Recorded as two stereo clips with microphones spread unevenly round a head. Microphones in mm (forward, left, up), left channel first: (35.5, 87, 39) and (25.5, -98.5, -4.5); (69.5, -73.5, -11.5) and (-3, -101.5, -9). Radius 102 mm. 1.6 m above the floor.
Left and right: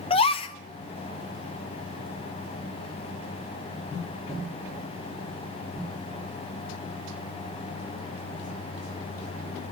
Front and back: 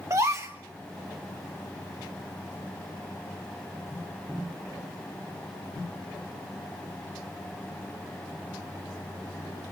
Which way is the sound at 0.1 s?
140° left.